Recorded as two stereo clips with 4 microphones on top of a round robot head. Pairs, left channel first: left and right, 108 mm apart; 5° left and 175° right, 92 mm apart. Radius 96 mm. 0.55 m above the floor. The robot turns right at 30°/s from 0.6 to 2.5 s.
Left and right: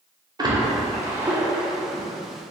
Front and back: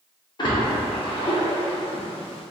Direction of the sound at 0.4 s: 35° right.